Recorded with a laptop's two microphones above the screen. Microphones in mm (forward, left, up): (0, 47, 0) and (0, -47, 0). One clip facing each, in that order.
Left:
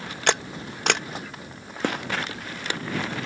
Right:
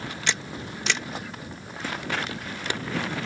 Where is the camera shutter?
55° left (ahead or behind).